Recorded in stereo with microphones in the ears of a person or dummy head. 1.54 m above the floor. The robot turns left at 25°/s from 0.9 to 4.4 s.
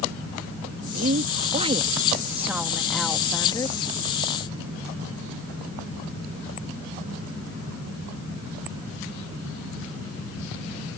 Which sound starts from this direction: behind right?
A woman speaking, at 0.9 s.